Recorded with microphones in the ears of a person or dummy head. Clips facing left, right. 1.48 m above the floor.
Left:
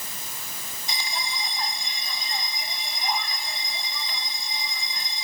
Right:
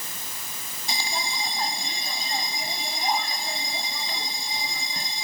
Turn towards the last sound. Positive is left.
turn(degrees=-35)  # may be behind; listen again after turning